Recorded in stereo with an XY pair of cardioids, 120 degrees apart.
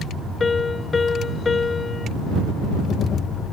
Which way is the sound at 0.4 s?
25° left.